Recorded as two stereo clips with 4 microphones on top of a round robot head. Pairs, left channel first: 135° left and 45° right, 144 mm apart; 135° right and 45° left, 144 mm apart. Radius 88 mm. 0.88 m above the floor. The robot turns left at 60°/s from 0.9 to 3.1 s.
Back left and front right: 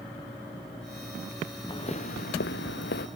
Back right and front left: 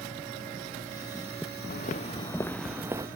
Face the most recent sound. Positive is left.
turn(degrees=105)